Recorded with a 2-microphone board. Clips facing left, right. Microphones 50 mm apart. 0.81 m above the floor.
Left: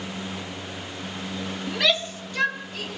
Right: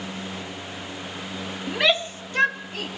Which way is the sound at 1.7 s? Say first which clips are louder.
Right 2 dB; 15° right (ahead or behind).